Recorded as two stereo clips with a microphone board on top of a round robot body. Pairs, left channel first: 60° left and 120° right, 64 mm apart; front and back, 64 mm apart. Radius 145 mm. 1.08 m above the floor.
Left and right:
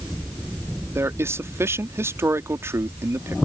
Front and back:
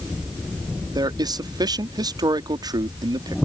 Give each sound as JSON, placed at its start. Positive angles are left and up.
{"t": 0.9, "sound": "a man speaking", "azimuth_deg": -170}